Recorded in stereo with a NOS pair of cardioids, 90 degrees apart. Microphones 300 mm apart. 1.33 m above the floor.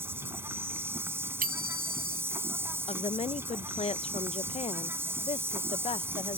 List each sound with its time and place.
0.0 s an insect: 10° right
1.4 s a bicycle bell: 30° right
2.9 s a woman speaking: 20° left